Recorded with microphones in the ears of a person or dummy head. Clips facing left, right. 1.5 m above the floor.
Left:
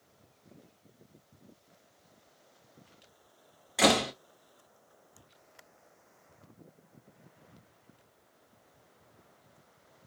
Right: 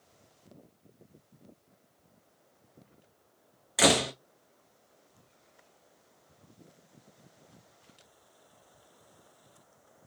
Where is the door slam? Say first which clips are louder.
Even; 5° right (ahead or behind), 0.5 m.